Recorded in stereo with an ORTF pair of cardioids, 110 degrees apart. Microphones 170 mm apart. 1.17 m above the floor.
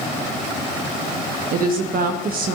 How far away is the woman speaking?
About 1.5 m.